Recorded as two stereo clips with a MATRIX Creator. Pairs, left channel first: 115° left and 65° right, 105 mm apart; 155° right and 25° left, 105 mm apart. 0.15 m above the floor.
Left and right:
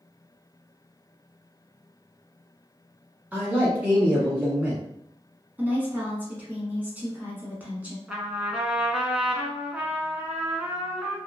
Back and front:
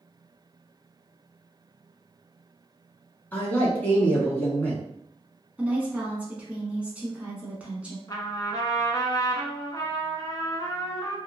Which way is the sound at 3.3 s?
120° right.